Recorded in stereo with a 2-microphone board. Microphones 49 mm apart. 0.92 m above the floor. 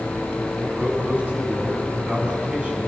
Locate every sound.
0.6 s a man speaking: 30° right (ahead or behind), 8 m; by 2.9 s 20° right (ahead or behind), 8 m